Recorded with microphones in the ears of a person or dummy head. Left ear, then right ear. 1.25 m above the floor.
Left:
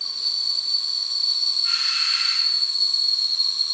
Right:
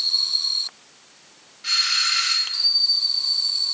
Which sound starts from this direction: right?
A doorbell, at 1.6 s.